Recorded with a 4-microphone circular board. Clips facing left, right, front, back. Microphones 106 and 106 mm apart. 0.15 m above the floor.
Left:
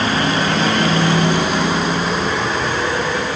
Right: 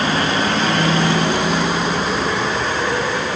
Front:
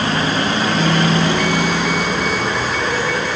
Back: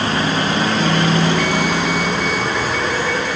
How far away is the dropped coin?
No dropped coin in this recording.